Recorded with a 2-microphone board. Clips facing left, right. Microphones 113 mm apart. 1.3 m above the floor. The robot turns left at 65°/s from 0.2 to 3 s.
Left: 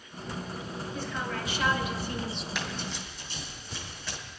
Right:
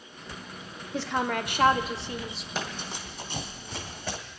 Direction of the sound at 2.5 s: 35° right (ahead or behind).